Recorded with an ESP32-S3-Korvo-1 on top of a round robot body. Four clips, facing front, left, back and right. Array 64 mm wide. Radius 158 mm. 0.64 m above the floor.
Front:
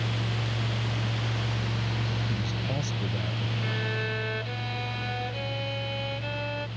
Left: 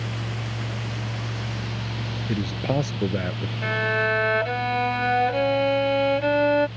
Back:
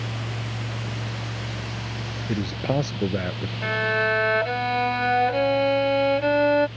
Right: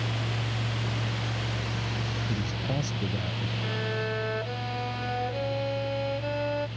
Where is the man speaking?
135° left.